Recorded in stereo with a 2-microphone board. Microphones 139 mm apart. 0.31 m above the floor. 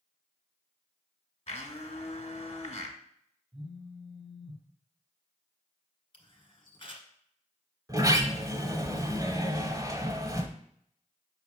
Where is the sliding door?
30° right (ahead or behind), 0.9 m.